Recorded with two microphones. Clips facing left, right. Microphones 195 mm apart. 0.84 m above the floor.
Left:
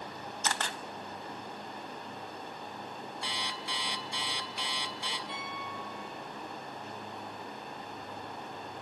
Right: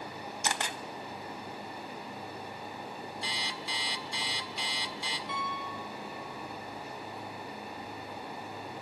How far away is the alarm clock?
About 1.5 m.